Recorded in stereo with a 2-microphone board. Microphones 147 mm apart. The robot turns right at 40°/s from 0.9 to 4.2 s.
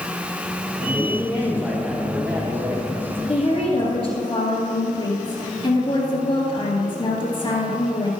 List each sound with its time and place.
0.8 s a man speaking: 135° left, 3.5 m; by 2.9 s 140° right, 3.5 m
3.3 s a woman speaking: 90° left, 2 m; by 8.1 s 125° left, 2 m